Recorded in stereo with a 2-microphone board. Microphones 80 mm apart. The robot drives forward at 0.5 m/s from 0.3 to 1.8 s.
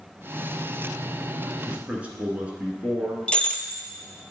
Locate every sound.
1.6 s a man speaking: 15° right (ahead or behind), 1.7 m
3.3 s breaking glass: 15° left (ahead or behind), 0.6 m